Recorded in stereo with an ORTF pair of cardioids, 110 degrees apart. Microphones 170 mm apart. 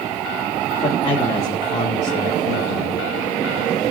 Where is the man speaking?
30° left, 3.5 m; by 3.0 s 75° left, 1.8 m.